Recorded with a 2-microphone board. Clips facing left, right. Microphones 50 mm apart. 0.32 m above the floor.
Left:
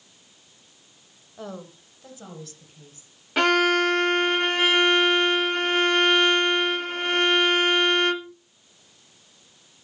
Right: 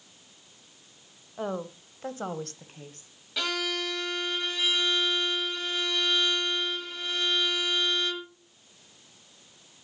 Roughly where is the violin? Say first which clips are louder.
Left 12 dB; left.